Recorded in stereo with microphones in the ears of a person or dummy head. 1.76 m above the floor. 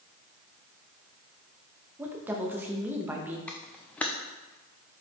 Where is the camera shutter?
5° left (ahead or behind), 0.5 m.